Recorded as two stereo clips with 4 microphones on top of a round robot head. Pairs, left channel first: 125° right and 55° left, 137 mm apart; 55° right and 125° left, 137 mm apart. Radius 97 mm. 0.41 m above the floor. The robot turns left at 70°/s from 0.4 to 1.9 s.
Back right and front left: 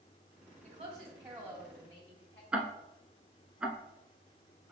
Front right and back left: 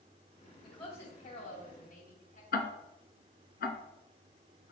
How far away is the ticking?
About 0.9 m.